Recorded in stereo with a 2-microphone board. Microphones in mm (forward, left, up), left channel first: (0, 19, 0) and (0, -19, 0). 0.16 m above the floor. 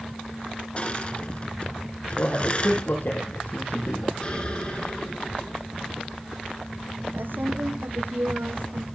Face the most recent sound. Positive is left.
turn(degrees=-80)